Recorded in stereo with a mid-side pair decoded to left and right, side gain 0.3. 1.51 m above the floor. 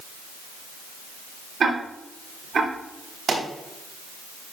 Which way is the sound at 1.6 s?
70° right.